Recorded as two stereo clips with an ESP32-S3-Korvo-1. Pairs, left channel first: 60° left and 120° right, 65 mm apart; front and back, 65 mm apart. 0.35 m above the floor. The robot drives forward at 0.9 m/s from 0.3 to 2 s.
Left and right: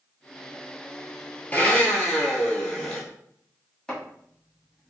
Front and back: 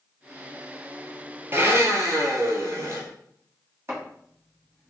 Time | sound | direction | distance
1.5 | a blender | 125° left | 1.1 m
3.9 | chopping | 140° left | 2 m